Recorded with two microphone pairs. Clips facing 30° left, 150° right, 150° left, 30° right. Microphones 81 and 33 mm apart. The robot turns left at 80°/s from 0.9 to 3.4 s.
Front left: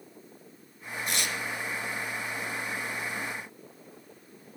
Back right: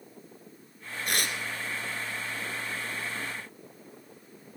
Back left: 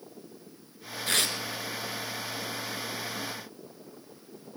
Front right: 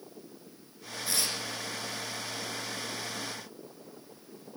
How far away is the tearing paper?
About 1.1 m.